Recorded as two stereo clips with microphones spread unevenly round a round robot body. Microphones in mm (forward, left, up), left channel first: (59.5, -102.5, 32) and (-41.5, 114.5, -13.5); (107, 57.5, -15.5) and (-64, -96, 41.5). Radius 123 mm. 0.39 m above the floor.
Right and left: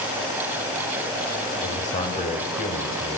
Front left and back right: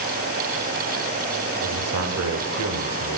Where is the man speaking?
130° right, 1.4 m.